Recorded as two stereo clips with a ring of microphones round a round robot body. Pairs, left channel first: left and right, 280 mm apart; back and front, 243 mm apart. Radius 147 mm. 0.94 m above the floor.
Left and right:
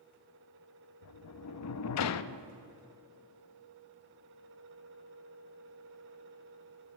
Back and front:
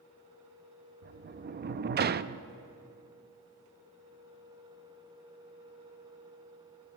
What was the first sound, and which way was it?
A sliding door, 55° left.